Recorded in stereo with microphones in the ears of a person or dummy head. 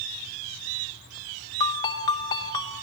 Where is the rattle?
I don't hear a rattle.